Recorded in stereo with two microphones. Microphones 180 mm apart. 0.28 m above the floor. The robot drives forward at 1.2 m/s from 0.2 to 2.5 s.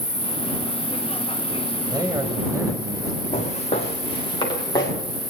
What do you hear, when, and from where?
0.0 s an insect: 35° left (ahead or behind), 3.5 m; by 5.3 s 20° left (ahead or behind), 5.5 m
1.9 s a man speaking: 25° right (ahead or behind), 1.1 m; by 3.2 s 20° right (ahead or behind), 1.4 m
3.3 s footsteps: 40° left (ahead or behind), 4 m; by 4.9 s 20° left (ahead or behind), 4.5 m